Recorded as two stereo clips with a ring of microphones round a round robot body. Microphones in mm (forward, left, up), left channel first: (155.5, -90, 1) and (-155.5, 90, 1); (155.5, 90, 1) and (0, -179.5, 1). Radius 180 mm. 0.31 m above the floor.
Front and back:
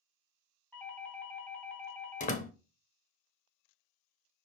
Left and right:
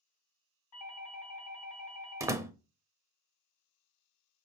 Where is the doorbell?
55° left, 3 m.